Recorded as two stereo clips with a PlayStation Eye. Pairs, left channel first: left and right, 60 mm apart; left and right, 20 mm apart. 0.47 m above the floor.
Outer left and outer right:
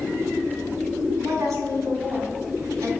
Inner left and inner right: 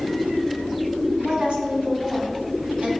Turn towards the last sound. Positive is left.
turn(degrees=-70)  # may be behind; listen again after turning